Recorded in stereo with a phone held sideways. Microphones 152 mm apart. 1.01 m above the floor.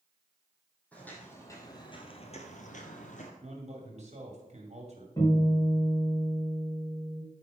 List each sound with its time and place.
0.9 s footsteps: 10° left (ahead or behind), 3 m; by 3.3 s 50° left (ahead or behind), 2 m
3.4 s a man speaking: 45° right (ahead or behind), 2.5 m
5.2 s a guitar: 20° left (ahead or behind), 5 m